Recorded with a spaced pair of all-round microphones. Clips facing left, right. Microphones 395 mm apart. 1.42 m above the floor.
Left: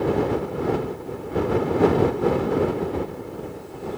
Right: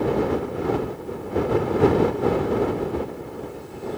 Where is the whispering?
I don't hear whispering.